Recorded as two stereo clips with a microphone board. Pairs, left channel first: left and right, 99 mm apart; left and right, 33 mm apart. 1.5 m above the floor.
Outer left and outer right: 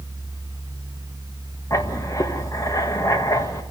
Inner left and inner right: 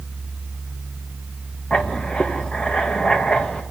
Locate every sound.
1.7 s writing: 35° left (ahead or behind), 1.8 m